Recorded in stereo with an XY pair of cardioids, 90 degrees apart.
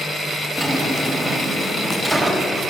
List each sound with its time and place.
0.6 s a drawer: 15° right, 4.5 m